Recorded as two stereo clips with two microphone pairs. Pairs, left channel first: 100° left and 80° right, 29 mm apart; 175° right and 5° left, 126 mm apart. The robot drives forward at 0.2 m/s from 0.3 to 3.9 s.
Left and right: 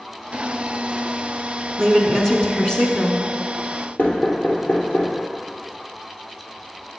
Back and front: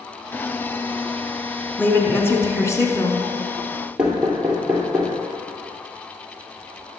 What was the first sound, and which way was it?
A woman speaking, 135° left.